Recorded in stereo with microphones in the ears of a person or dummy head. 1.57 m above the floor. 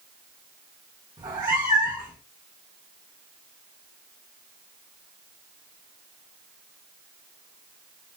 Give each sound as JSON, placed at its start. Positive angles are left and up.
{"t": 1.2, "sound": "a cat meowing", "side_deg": -15, "distance_m": 0.9}